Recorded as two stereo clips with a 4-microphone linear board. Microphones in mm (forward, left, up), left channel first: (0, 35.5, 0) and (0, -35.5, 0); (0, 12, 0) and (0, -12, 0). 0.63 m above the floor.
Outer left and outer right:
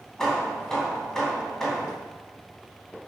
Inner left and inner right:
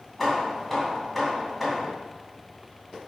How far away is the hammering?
About 2.5 m.